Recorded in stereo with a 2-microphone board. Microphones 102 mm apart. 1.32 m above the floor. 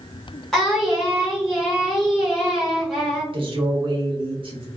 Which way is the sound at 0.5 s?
5° left (ahead or behind).